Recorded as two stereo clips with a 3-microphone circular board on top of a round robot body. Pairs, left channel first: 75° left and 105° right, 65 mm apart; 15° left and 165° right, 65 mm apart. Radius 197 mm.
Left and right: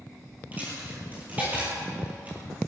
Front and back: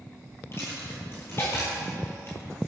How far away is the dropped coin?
About 2 m.